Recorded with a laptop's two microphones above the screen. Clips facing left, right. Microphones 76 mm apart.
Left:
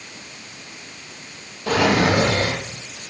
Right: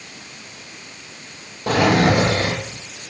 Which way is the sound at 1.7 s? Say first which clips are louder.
Right 2 dB; 40° right (ahead or behind).